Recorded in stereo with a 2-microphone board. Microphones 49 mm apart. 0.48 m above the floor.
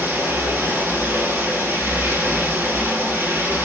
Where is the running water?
50° right (ahead or behind), 1.8 m.